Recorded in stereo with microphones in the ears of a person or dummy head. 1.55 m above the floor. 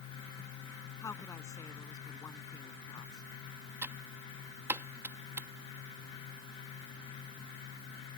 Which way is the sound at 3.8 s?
10° right (ahead or behind).